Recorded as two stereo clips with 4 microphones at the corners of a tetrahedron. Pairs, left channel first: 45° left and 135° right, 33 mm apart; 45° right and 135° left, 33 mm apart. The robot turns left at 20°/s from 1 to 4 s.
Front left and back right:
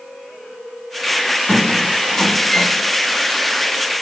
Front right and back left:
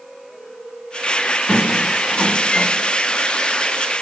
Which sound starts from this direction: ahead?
A squeak, at 1.5 s.